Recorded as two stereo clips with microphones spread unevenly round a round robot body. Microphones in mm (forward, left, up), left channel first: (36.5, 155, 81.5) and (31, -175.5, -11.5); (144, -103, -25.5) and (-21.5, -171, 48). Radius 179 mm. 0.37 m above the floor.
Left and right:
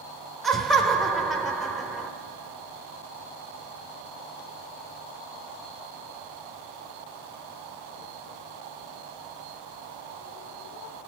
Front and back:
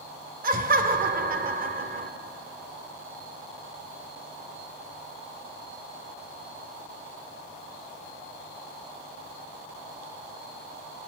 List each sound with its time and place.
0.4 s laughter: 140° right, 0.8 m